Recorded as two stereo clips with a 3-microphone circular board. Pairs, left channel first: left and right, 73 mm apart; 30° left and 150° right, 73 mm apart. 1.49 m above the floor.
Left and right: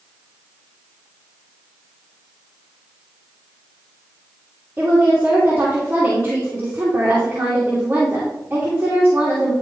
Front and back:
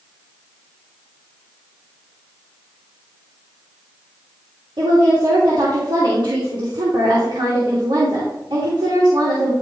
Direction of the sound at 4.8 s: 160° right.